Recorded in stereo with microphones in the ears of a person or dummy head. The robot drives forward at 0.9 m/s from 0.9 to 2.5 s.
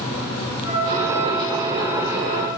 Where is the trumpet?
60° left (ahead or behind), 4.5 m; by 2.5 s 45° left (ahead or behind), 5.5 m.